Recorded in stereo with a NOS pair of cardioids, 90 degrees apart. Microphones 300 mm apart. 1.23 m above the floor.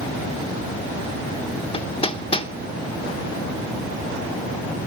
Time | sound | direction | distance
1.7 | hammering | 20° left | 0.7 m